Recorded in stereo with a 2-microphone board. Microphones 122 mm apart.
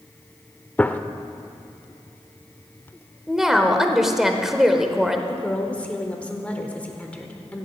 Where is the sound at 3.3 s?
5° right (ahead or behind), 1.2 m.